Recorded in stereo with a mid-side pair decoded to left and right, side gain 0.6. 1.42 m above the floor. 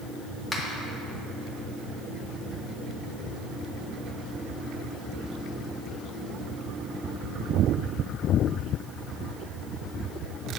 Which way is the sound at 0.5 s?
15° left.